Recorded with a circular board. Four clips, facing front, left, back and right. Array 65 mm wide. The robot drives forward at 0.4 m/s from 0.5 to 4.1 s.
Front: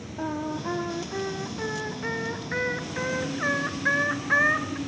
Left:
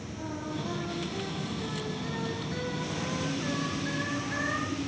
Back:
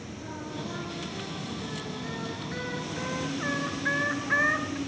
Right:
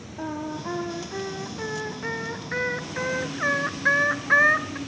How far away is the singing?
About 2 m.